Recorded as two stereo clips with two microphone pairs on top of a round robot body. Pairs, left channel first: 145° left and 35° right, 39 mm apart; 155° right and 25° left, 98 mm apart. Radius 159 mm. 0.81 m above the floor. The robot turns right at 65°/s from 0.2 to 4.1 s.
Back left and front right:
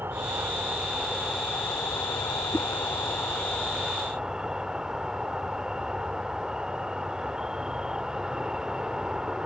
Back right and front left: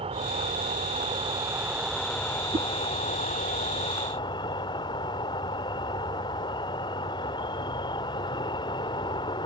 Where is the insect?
Straight ahead; by 9.5 s 105° right.